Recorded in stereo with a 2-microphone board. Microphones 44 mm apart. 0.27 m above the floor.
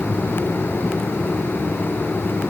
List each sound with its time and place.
Only background noise.